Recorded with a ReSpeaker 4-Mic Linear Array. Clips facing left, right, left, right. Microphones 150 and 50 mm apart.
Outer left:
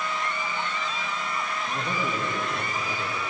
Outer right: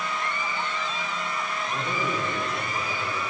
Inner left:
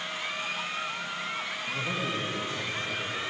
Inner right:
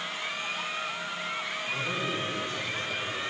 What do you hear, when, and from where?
1.7 s a man speaking: 30° left (ahead or behind), 4.5 m